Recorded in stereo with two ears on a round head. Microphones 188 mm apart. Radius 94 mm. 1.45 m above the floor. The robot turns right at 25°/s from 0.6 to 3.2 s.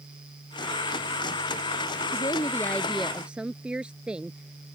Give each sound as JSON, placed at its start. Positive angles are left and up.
{"t": 2.1, "sound": "a woman speaking", "side_deg": 25}